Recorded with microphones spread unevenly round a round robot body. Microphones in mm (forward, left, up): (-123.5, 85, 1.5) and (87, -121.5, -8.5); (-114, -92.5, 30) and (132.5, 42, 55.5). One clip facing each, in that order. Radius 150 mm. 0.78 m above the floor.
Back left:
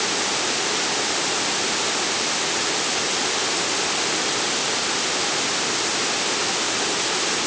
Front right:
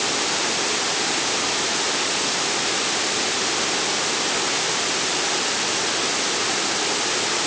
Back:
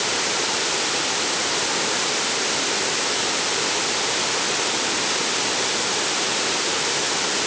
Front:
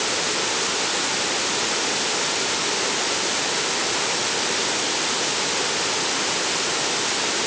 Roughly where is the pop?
No pop in this recording.